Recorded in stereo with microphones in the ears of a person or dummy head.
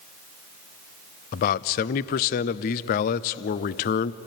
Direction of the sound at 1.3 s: 45° left (ahead or behind).